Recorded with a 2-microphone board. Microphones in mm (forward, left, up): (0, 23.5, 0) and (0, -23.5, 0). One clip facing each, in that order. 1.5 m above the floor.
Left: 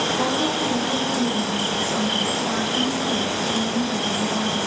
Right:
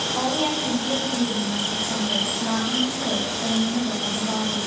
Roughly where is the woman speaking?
Right.